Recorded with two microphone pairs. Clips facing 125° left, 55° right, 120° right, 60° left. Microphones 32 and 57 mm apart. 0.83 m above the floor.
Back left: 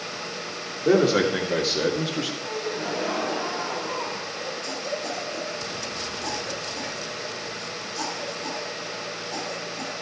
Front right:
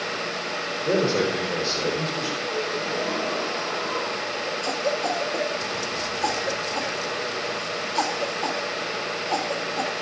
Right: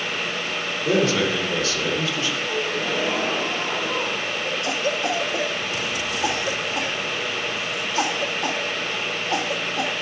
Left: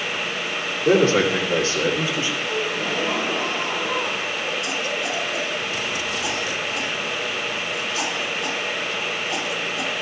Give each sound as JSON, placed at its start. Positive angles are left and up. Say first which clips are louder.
{"t": 0.8, "sound": "a man speaking", "louder": "back left 3 dB, left 4 dB", "azimuth_deg": 115, "distance_m": 2.5}
{"t": 2.5, "sound": "a gasp", "louder": "front right 2 dB, even", "azimuth_deg": 165, "distance_m": 4.0}
{"t": 4.6, "sound": "a cough", "louder": "front right 7 dB, right 2 dB", "azimuth_deg": -75, "distance_m": 1.3}